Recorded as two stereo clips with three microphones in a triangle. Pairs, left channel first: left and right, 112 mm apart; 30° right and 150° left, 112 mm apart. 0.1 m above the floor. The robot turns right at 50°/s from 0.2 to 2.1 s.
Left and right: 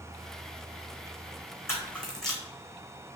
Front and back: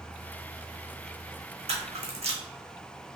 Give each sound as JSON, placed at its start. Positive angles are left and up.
{"t": 1.7, "sound": "a camera shutter", "azimuth_deg": 155, "distance_m": 1.1}